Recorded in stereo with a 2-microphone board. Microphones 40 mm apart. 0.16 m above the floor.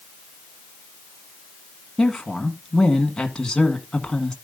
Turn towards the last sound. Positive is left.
turn(degrees=15)  # may be behind; listen again after turning